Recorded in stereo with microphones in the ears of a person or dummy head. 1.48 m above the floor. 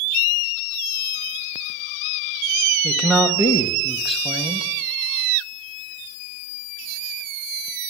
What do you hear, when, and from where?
2.8 s a man speaking: centre (ahead or behind), 1.0 m